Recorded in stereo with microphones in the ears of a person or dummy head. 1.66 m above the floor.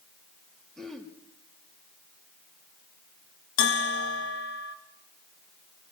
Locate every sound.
0.8 s throat clearing: 5° left (ahead or behind), 3 m
3.6 s a bell: 85° left, 2.5 m